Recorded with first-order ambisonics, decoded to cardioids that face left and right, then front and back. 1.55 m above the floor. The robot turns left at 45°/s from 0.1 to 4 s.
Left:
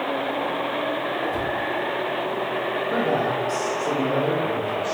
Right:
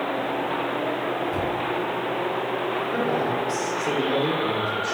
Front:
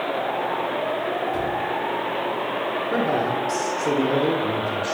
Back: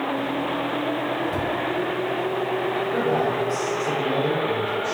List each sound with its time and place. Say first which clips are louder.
1.3 s a cupboard door: left 1 dB, front 1 dB; 170° right, 1.0 m; by 1.6 s straight behind, 1.0 m
2.9 s a man speaking: left 3 dB, front 1 dB; 40° left, 0.8 m; by 4.9 s 5° right, 0.8 m